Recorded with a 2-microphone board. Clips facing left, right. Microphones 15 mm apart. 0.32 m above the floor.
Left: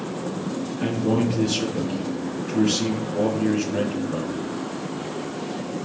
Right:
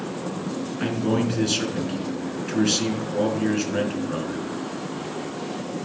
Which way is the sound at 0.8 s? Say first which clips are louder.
Left 1 dB; 30° right (ahead or behind).